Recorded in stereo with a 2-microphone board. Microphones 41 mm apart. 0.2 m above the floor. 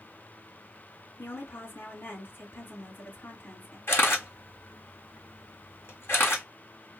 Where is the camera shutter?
70° left (ahead or behind), 2.5 m.